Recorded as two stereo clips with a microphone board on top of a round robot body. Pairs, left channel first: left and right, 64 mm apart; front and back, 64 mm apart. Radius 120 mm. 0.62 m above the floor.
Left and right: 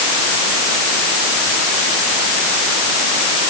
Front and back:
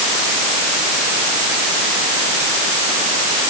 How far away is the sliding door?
No sliding door in this recording.